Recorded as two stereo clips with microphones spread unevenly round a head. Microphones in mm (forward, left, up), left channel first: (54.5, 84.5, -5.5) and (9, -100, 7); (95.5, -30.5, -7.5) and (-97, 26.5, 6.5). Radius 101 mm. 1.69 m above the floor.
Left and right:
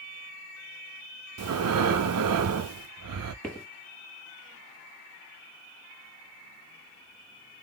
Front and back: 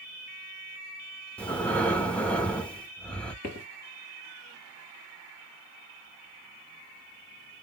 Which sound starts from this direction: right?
Breathing, at 1.4 s.